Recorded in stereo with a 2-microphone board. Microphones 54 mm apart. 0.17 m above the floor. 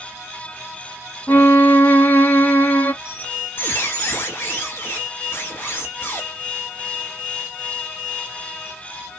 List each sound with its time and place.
1.3 s a violin: 40° left (ahead or behind), 1.4 m
3.0 s a squeak: 45° left (ahead or behind), 2 m